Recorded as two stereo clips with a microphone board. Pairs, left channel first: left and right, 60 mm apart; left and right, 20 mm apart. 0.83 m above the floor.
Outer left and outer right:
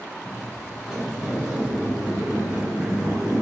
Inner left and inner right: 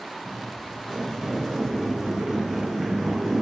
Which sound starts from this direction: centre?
Footsteps, at 0.2 s.